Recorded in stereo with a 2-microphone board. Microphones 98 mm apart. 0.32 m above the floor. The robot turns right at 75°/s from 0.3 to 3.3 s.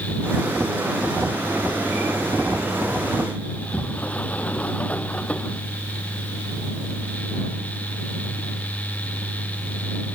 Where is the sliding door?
15° left (ahead or behind).